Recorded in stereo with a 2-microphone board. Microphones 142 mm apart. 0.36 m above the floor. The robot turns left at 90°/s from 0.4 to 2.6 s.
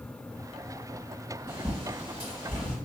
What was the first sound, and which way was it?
A bird, 15° right (ahead or behind).